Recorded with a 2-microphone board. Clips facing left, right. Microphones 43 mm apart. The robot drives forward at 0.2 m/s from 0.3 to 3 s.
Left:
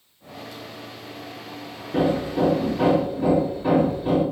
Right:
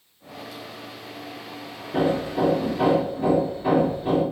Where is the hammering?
5° left (ahead or behind), 1.9 m.